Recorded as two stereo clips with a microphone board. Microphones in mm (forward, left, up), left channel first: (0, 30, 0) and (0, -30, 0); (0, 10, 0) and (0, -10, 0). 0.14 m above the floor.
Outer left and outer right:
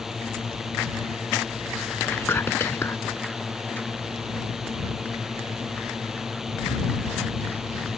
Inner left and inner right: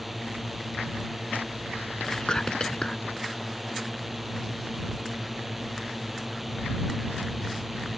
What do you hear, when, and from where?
0.0 s a drone: 5° right (ahead or behind)
2.1 s whispering: 40° left (ahead or behind)